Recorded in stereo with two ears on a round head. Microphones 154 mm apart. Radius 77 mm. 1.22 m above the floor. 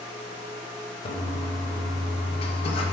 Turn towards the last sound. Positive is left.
turn(degrees=35)  # may be behind; listen again after turning